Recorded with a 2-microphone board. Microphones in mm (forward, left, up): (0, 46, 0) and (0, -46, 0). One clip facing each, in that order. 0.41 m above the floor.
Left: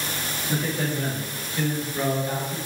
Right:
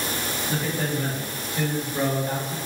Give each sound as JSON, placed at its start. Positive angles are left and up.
{"t": 0.5, "sound": "a man speaking", "side_deg": 10, "distance_m": 1.4}